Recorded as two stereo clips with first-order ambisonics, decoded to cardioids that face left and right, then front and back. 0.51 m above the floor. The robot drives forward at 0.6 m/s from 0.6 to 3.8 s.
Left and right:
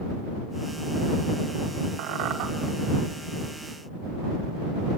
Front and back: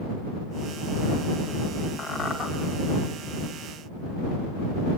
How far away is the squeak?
About 3 m.